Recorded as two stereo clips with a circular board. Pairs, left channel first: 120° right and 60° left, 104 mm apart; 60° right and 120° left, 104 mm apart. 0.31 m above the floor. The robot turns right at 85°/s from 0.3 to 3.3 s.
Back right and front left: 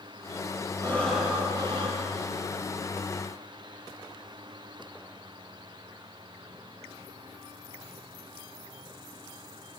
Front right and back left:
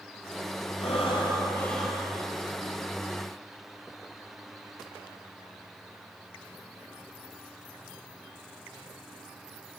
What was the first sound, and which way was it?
Breathing, 60° right.